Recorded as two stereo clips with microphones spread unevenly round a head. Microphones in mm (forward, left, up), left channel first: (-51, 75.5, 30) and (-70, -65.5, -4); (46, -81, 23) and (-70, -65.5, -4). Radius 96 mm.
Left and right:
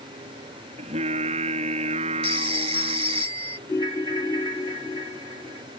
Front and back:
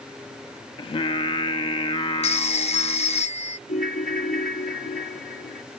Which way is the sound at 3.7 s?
15° left.